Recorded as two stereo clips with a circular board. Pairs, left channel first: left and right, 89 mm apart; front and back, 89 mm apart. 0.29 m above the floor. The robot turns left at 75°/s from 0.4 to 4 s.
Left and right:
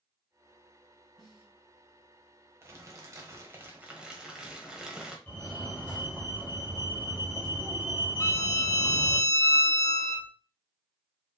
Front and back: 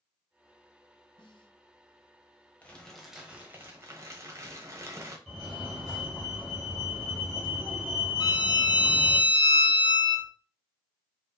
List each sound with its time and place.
1.2 s a snare drum: 5° left, 1.7 m; by 1.5 s 20° right, 1.7 m
2.6 s crumpling: 60° right, 1.1 m; by 5.2 s 165° right, 1.1 m
5.3 s a fire alarm: 100° left, 1.9 m
8.2 s a violin: 35° left, 0.8 m